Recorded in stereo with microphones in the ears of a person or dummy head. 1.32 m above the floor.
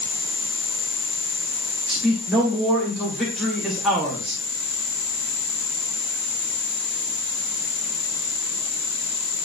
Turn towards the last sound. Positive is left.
turn(degrees=5)  # may be behind; listen again after turning